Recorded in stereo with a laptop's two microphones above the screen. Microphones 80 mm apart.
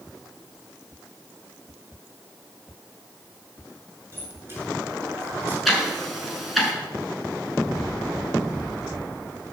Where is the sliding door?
30° right (ahead or behind), 7.5 m.